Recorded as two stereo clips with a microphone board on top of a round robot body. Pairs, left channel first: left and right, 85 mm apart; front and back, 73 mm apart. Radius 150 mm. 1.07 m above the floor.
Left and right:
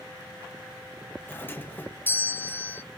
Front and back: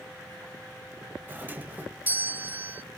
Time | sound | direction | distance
1.3 | a doorbell | 135° left | 0.7 m